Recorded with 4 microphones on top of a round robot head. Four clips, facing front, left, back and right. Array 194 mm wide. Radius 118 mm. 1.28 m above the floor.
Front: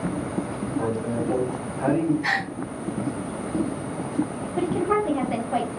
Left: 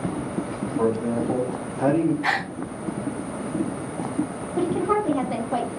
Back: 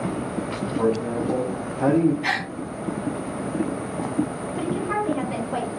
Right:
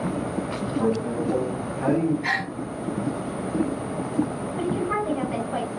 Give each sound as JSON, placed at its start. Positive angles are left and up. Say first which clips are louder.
{"t": 0.8, "sound": "a man speaking", "louder": "left 2 dB, back 4 dB", "azimuth_deg": 120, "distance_m": 1.5}
{"t": 2.2, "sound": "a gasp", "louder": "left 2 dB, even", "azimuth_deg": 105, "distance_m": 0.6}
{"t": 4.6, "sound": "a woman speaking", "louder": "left 4 dB, front 3 dB", "azimuth_deg": 65, "distance_m": 1.0}